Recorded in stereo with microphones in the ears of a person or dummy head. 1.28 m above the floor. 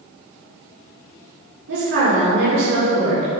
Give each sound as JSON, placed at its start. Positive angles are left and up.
{"t": 1.7, "sound": "a woman speaking", "side_deg": -65, "distance_m": 3.5}